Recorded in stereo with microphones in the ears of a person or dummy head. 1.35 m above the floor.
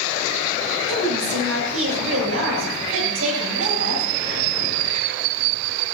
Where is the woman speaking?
90° right, 9.5 m.